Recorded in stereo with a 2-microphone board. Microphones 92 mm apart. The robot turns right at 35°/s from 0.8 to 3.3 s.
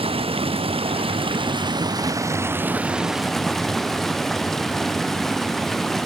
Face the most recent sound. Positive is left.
turn(degrees=5)